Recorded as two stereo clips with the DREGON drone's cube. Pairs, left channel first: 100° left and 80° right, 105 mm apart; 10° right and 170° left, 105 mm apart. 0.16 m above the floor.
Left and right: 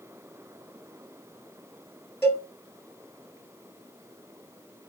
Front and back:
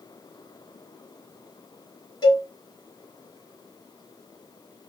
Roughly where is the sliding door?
I don't hear a sliding door.